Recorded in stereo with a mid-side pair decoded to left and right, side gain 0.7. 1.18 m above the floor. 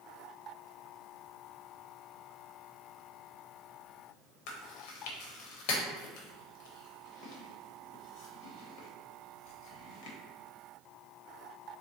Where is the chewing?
70° left, 0.9 m.